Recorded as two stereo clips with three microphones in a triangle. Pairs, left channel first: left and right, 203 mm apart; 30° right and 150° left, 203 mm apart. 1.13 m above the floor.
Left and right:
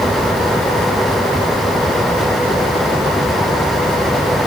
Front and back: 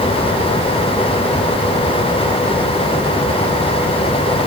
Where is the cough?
I don't hear a cough.